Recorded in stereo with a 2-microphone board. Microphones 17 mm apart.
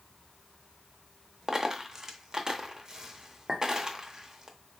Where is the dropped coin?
35° right (ahead or behind), 0.7 m.